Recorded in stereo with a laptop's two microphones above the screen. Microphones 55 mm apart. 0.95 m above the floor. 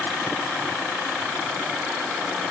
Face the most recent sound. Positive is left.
No sound to turn to.